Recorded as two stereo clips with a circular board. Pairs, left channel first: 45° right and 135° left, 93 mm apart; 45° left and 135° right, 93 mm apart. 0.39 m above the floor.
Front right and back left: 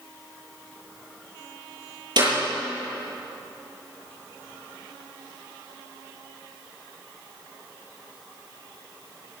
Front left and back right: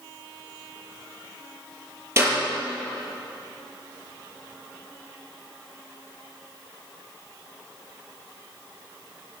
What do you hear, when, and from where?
2.2 s a clap: 165° left, 7 m